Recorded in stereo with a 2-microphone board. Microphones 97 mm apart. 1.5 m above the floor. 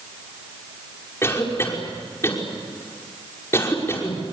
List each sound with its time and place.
1.2 s a cough: 25° left (ahead or behind), 5.5 m